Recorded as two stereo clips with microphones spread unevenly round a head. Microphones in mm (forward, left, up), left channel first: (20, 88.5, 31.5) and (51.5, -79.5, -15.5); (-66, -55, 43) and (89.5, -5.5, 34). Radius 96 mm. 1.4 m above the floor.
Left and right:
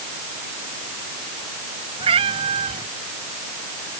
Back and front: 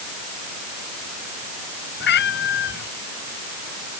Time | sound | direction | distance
2.0 | a cat meowing | 145° right | ?